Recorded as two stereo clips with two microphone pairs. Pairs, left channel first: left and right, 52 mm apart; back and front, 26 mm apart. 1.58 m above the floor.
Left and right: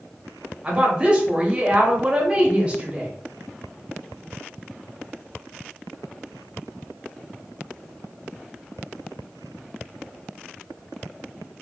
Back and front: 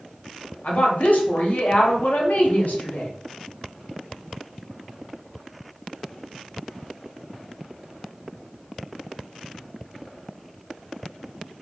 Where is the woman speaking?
160° right, 0.9 m.